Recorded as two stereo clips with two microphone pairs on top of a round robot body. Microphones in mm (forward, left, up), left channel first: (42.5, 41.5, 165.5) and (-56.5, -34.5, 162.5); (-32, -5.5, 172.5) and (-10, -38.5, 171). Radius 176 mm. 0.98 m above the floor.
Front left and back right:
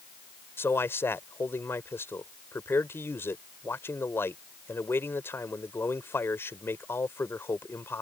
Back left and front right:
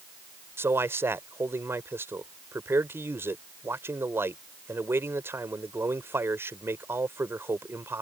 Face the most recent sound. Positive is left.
turn(degrees=-35)